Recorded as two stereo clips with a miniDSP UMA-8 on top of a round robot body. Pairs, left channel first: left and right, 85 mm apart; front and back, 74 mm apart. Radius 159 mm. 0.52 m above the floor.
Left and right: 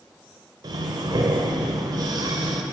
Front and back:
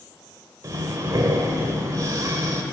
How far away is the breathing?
About 0.5 m.